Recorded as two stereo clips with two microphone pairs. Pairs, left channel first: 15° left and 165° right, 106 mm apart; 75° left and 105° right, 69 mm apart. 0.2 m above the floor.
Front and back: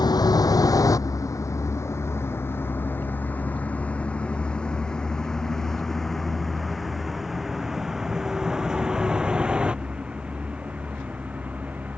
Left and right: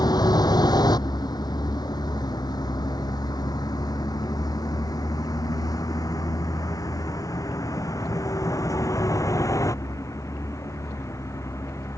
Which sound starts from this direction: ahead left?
A vehicle, at 0.0 s.